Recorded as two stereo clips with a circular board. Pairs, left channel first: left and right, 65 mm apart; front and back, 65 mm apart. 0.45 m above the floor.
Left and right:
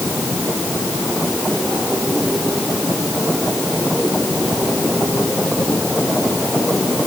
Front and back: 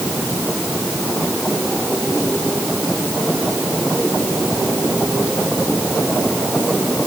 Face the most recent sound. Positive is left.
No sound to turn to.